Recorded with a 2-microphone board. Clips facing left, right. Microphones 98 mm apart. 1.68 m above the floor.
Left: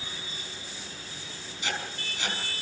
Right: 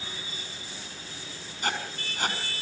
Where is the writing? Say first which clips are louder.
Right 3 dB; 50° right (ahead or behind), 5.5 m.